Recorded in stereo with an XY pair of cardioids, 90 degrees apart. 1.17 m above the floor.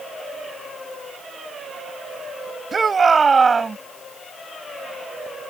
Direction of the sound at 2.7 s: 40° right.